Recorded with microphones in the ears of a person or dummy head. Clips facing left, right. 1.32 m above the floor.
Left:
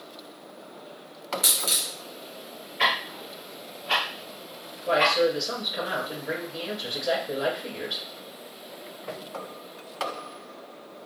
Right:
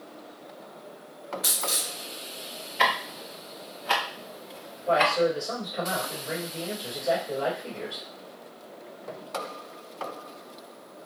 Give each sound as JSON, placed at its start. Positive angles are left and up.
{"t": 1.4, "sound": "a dropped coin", "side_deg": 40, "distance_m": 0.8}
{"t": 2.8, "sound": "ticking", "side_deg": -85, "distance_m": 0.9}
{"t": 4.9, "sound": "a man speaking", "side_deg": 35, "distance_m": 1.3}